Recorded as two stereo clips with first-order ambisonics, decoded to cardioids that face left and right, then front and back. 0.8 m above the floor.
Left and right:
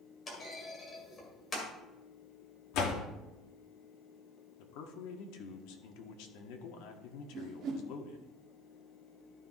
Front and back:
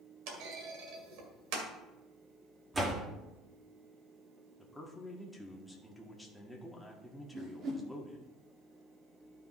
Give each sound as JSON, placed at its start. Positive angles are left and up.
{"t": 0.3, "sound": "a clunk", "azimuth_deg": 160, "distance_m": 2.0}
{"t": 2.7, "sound": "a door slam", "azimuth_deg": 105, "distance_m": 1.3}
{"t": 4.6, "sound": "a man speaking", "azimuth_deg": 85, "distance_m": 1.3}
{"t": 7.3, "sound": "a whoosh", "azimuth_deg": -130, "distance_m": 1.6}